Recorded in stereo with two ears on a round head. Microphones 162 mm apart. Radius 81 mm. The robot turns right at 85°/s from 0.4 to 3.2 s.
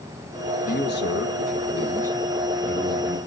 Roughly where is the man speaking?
Ahead left.